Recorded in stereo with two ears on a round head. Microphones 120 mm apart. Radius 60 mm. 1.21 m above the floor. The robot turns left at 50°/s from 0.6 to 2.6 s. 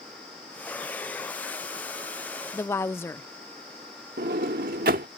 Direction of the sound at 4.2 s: 75° right (ahead or behind).